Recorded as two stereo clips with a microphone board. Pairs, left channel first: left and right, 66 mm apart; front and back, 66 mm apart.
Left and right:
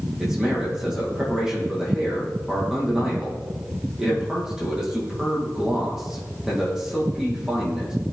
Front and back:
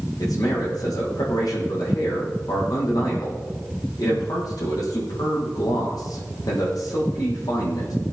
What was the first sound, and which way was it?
A man speaking, 10° right.